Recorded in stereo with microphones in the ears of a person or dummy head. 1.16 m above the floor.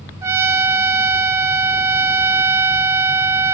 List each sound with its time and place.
0.2 s a trumpet: 15° right (ahead or behind), 1.3 m